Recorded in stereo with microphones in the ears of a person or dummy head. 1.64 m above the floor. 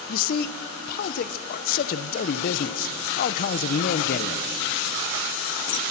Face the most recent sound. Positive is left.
turn(degrees=45)  # may be behind; listen again after turning